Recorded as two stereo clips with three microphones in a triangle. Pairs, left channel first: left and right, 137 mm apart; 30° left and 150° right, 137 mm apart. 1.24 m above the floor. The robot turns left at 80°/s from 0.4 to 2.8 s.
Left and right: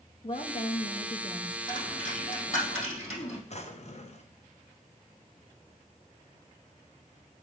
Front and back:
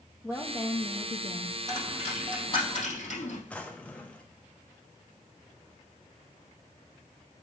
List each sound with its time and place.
0.2 s a woman speaking: 105° left, 0.7 m; by 1.6 s 15° left, 0.7 m
1.7 s a dropped coin: 150° left, 3.5 m; by 3.4 s 60° left, 3.5 m
3.5 s a drawer: 110° left, 0.8 m